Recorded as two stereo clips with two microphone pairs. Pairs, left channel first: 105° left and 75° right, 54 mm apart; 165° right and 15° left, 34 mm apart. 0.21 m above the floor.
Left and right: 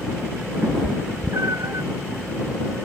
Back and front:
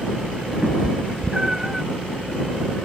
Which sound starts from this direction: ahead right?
A cat meowing, at 0.6 s.